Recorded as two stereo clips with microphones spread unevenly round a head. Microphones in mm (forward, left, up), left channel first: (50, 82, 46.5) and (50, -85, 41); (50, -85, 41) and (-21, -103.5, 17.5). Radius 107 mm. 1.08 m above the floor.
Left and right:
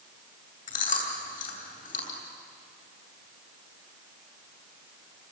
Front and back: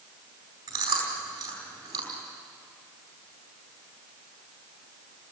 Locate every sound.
0.7 s chewing: 140° left, 4 m